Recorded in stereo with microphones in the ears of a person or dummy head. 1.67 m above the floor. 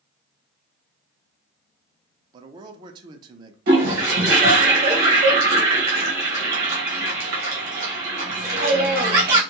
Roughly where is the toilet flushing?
Right.